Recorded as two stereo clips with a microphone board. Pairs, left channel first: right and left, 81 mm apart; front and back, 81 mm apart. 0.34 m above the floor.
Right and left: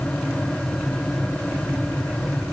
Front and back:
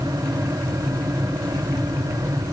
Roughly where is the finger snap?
I don't hear a finger snap.